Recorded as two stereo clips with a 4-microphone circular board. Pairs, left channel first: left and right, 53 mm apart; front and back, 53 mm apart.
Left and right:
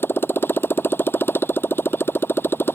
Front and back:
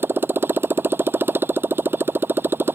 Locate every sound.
0.0 s a motorcycle: 135° left